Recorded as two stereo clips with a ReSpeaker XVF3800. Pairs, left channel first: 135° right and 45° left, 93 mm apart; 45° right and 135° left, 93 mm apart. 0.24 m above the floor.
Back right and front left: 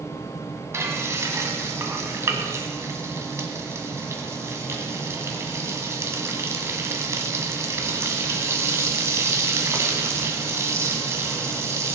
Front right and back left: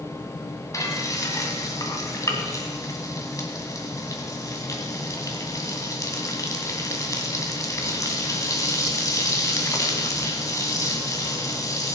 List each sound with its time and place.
0.7 s frying: 5° right, 2 m